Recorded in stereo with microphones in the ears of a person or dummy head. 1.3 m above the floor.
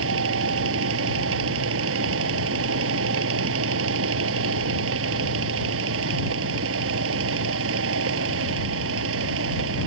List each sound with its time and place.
0.0 s a fan: 80° right